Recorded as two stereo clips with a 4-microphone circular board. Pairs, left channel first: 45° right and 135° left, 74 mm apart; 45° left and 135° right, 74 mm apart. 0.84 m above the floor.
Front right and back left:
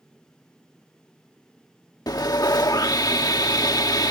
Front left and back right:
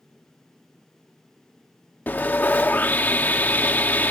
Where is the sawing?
20° right.